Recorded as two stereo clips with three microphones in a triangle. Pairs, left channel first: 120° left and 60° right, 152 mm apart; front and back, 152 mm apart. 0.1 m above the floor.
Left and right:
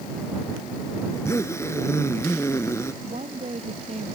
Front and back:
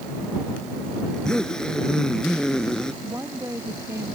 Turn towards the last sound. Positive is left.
turn(degrees=-105)